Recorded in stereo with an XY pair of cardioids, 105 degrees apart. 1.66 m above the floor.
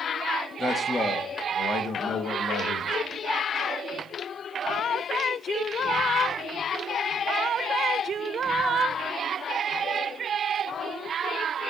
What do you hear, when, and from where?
0.6 s a man speaking: 20° left, 2.0 m; by 3.0 s 80° left, 2.5 m